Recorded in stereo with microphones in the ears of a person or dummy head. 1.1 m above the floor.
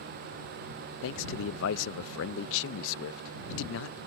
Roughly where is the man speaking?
Left.